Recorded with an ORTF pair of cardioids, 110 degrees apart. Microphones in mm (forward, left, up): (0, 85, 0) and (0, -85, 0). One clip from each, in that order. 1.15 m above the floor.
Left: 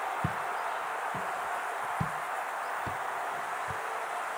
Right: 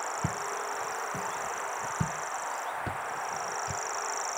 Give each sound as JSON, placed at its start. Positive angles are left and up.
{"t": 0.2, "sound": "footsteps", "azimuth_deg": -5}